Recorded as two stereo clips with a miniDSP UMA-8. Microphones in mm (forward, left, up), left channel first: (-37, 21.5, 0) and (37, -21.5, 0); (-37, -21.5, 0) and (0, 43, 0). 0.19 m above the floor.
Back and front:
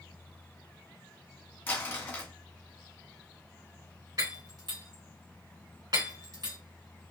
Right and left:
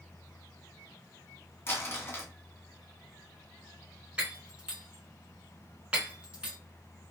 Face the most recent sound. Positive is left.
turn(degrees=-10)